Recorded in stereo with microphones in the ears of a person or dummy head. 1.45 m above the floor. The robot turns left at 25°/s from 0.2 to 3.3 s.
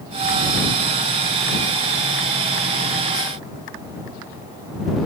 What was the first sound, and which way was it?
Only background noise.